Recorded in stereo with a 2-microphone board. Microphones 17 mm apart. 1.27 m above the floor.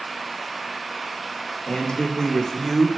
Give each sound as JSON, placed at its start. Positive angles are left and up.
{"t": 1.7, "sound": "a man speaking", "side_deg": 55, "distance_m": 2.0}